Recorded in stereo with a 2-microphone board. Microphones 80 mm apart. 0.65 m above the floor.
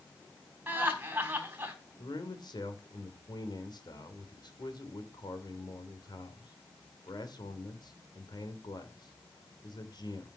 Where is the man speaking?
65° left (ahead or behind), 2.5 m.